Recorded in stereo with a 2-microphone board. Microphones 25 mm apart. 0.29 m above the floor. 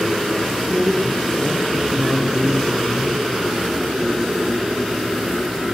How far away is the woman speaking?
About 10 m.